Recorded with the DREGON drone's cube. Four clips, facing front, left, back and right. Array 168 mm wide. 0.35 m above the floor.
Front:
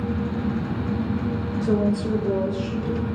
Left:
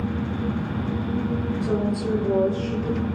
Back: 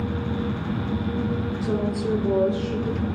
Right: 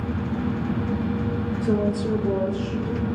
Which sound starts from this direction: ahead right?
A woman speaking, at 1.6 s.